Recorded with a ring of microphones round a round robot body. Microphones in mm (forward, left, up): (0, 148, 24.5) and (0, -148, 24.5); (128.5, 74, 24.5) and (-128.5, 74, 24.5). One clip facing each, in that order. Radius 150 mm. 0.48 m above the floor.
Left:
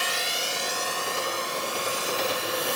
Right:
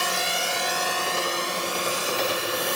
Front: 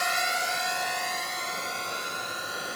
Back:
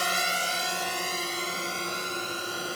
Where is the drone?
125° right; by 2.8 s 115° right.